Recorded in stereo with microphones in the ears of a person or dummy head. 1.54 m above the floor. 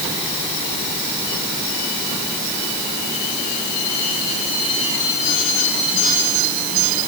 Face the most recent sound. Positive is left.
No sound to turn to.